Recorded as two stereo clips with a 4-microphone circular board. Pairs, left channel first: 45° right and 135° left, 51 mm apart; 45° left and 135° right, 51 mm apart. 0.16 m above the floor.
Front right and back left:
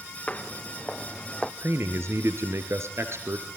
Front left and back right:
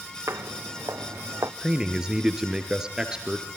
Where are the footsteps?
110° right, 1.8 m; by 1.5 s 125° right, 1.3 m.